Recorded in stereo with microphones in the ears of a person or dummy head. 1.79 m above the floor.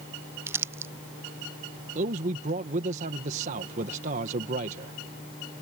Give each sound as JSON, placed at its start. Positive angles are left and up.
{"t": 0.5, "sound": "crumpling", "side_deg": -10}
{"t": 1.9, "sound": "a man speaking", "side_deg": -40}